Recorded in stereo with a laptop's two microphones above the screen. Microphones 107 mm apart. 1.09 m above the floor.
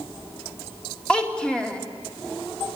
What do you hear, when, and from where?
1.1 s a child speaking: 10° left (ahead or behind), 2.5 m